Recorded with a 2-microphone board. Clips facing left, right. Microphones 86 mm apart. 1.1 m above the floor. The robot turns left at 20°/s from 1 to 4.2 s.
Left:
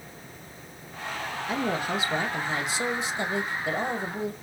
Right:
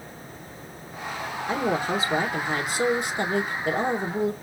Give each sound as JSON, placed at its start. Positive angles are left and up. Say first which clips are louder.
{"t": 1.5, "sound": "a woman speaking", "louder": "right 3 dB", "azimuth_deg": -30, "distance_m": 1.4}